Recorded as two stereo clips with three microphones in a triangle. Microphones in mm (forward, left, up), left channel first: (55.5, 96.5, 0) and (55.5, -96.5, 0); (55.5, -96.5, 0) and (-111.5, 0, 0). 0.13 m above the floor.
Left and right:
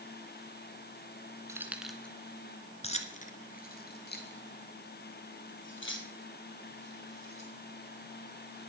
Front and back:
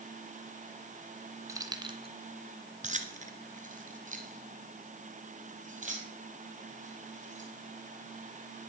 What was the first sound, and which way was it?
Keys jangling, 150° right.